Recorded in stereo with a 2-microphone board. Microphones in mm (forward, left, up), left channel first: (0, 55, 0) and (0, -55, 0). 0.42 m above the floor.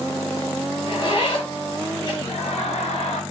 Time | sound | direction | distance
0.9 | a zipper | 45° left (ahead or behind) | 6.5 m
2.2 | laughter | 70° left (ahead or behind) | 7.5 m